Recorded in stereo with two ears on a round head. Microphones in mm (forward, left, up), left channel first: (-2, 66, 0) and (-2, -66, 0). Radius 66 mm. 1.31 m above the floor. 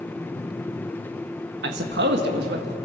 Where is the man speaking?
85° right, 1.3 m; by 2.8 s 75° right (ahead or behind), 1.8 m.